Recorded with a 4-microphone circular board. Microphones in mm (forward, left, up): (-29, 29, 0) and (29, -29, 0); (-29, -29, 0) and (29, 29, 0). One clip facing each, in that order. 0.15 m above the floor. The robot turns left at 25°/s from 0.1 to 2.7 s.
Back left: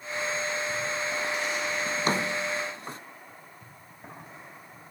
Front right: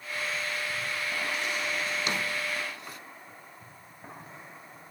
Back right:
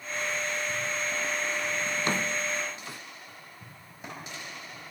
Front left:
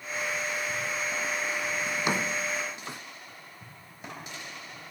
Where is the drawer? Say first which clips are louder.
Back left 4 dB, front left 2 dB; 120° left, 0.5 m; by 3.0 s 100° left, 0.5 m.